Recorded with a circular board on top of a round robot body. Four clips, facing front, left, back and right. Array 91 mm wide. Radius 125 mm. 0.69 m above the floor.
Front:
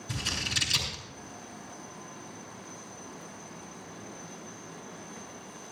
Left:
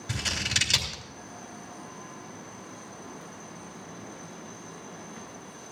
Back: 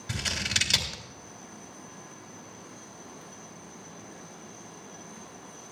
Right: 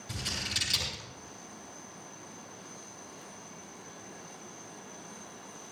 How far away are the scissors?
About 3 m.